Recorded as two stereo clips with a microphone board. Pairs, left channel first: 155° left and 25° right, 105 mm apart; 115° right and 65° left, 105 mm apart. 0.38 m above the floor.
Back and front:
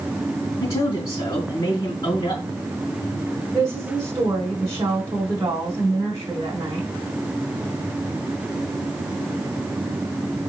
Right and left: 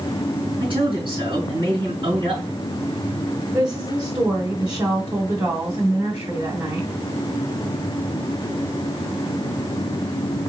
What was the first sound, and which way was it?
A man speaking, 105° left.